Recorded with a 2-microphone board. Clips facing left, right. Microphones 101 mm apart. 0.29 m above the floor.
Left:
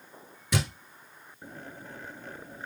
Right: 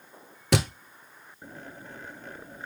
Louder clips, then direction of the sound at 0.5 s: Right 5 dB; 70° right (ahead or behind).